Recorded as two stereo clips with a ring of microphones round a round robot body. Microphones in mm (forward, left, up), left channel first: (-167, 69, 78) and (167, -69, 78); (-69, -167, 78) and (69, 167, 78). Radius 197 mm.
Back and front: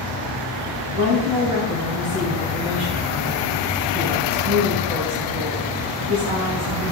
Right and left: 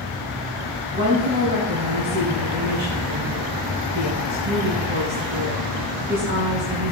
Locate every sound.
0.9 s a woman speaking: 5° left, 3.5 m